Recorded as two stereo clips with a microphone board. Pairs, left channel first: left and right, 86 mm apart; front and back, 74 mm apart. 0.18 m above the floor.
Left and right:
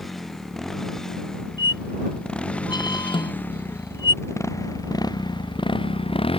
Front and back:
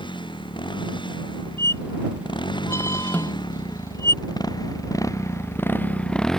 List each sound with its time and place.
0.0 s a motorcycle: straight ahead; by 6.4 s 85° left
1.6 s a squeak: 55° left
3.1 s a snare drum: 70° left